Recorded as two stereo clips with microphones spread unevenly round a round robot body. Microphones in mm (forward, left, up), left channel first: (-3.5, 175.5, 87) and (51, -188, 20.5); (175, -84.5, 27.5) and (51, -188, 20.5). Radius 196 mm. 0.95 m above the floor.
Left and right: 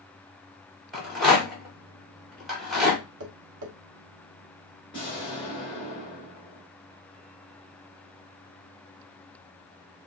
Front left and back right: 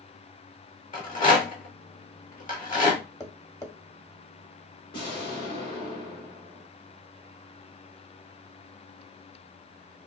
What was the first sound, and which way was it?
A rattle, 5° left.